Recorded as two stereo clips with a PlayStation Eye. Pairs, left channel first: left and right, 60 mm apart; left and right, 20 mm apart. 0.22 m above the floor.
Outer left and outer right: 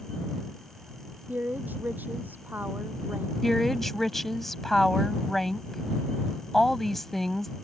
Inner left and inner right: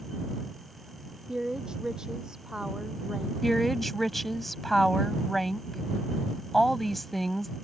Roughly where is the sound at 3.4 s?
Centre.